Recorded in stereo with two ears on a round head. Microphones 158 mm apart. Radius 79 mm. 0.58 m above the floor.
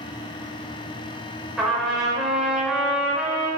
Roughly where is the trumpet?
Centre.